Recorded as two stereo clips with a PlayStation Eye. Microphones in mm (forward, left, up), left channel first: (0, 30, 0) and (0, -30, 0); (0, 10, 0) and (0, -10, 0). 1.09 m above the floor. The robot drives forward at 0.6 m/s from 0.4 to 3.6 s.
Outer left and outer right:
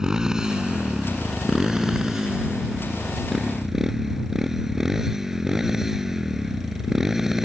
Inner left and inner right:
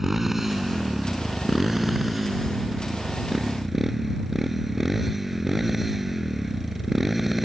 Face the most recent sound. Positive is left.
turn(degrees=-10)  # may be behind; listen again after turning